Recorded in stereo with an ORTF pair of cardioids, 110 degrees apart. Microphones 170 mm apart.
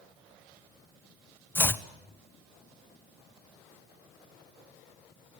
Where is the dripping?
I don't hear dripping.